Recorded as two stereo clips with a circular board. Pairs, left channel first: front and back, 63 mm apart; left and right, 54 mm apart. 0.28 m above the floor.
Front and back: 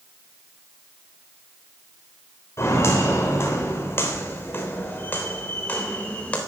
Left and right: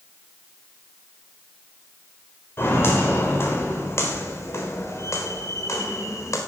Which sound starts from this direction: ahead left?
Footsteps, at 2.6 s.